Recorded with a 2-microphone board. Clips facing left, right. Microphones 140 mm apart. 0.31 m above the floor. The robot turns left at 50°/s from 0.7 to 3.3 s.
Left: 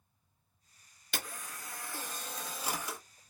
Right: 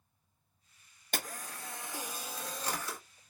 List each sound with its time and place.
1.1 s a camera shutter: 45° right (ahead or behind), 0.9 m; by 3.0 s 20° left (ahead or behind), 0.9 m